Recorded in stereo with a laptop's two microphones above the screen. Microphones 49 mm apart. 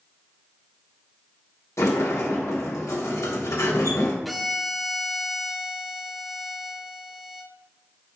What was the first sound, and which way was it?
A sliding door, 80° left.